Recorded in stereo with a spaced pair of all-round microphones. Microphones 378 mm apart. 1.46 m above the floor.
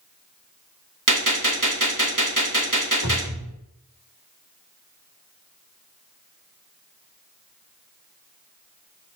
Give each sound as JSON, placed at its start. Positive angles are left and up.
{"t": 1.1, "sound": "a gunshot", "side_deg": -50, "distance_m": 2.0}
{"t": 3.0, "sound": "a cupboard door", "side_deg": 85, "distance_m": 2.5}